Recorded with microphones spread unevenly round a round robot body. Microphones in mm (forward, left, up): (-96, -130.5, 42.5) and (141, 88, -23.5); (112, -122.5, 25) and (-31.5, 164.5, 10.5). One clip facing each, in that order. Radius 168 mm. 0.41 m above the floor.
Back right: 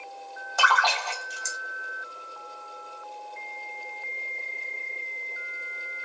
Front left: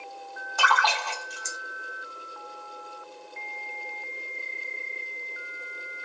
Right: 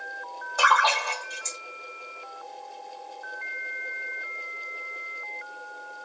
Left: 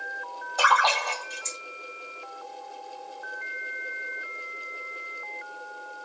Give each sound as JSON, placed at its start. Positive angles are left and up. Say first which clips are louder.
{"t": 0.6, "sound": "a splash", "louder": "even, even", "azimuth_deg": -145, "distance_m": 1.4}